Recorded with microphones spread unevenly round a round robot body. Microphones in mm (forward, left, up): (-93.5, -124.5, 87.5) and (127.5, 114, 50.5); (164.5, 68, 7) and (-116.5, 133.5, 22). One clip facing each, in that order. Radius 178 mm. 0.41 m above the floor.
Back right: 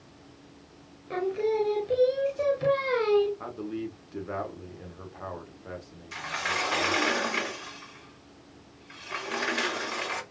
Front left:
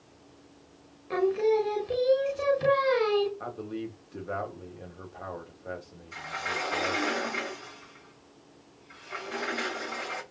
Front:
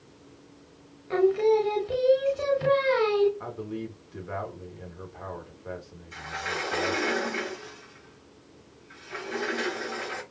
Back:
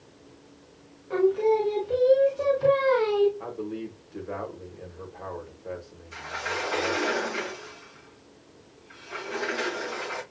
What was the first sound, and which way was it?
Singing, 15° right.